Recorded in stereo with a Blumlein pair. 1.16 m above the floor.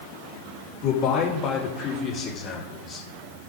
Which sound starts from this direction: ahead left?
A man speaking, at 0.8 s.